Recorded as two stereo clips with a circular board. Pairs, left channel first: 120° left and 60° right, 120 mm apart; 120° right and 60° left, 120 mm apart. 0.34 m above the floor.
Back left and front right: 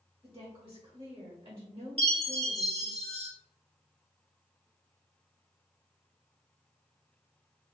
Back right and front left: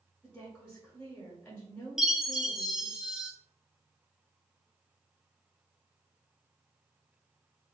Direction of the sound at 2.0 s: 25° right.